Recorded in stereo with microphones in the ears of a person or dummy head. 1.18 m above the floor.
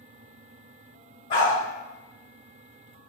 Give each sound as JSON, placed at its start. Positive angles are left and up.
{"t": 1.3, "sound": "a dog barking", "side_deg": 50, "distance_m": 1.8}